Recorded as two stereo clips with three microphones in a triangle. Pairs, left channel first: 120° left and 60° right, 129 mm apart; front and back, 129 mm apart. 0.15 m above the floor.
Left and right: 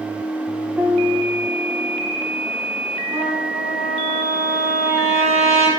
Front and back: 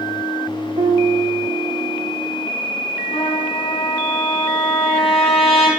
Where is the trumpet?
40° right, 2.5 m.